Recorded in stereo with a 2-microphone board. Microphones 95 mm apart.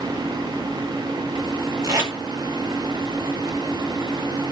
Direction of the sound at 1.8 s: 35° right (ahead or behind).